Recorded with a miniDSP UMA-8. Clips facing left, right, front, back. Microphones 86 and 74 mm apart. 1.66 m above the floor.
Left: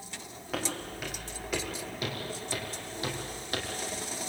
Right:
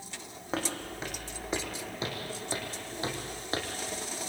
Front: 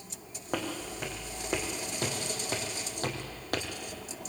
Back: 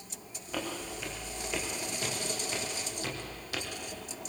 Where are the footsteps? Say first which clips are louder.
Right 1 dB, front 2 dB; 30° right, 5 m.